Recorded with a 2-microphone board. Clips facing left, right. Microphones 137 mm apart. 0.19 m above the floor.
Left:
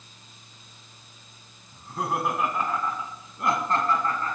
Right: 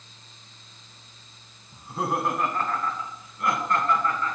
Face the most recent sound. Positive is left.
turn(degrees=40)  # may be behind; listen again after turning